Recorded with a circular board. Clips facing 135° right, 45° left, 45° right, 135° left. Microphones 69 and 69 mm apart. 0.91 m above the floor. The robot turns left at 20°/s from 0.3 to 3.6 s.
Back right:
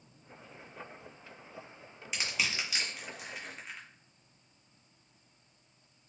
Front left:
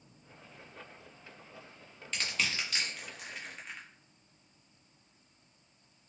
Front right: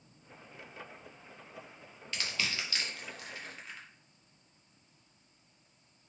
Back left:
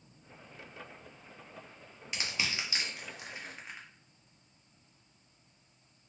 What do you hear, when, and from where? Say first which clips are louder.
2.1 s crushing: even, even; 165° left, 0.8 m; by 3.9 s 135° left, 0.8 m